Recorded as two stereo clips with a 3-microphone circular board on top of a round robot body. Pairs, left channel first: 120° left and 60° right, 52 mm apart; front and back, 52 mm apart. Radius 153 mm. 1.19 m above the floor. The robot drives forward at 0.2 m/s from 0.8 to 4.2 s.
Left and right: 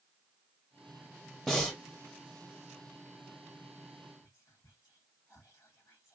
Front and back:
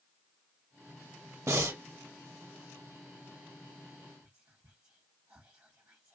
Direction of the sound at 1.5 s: 160° right.